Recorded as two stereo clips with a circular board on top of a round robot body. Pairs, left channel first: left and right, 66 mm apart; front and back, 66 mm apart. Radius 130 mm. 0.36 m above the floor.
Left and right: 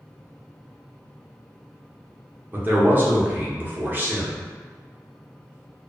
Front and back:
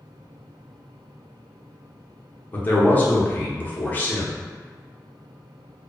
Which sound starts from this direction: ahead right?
A man speaking, at 2.5 s.